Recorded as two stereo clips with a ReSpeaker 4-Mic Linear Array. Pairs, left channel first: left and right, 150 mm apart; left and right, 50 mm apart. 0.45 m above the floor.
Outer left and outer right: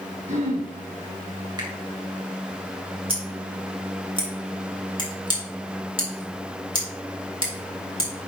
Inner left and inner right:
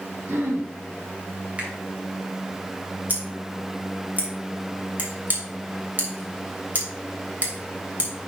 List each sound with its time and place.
0.3 s throat clearing: 55° right (ahead or behind), 1.6 m
1.6 s a finger snap: 30° right (ahead or behind), 2 m
3.1 s scissors: 40° right (ahead or behind), 2.5 m